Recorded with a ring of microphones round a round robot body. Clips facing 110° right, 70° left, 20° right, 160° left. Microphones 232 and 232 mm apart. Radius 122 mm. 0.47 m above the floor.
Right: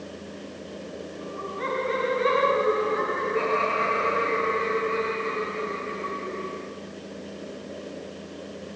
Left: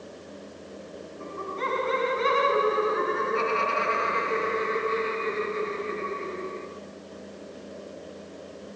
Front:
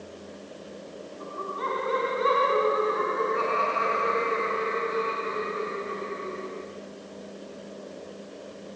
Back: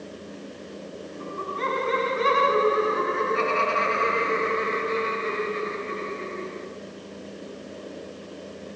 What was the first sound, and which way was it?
Laughter, 105° left.